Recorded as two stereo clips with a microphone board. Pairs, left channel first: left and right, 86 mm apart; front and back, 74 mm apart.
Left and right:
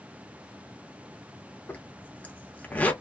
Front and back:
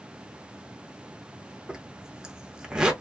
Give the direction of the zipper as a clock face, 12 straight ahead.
8 o'clock.